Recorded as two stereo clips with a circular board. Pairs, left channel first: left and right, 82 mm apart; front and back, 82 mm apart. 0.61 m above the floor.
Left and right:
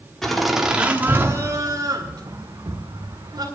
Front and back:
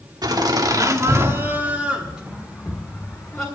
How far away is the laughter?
About 1.4 m.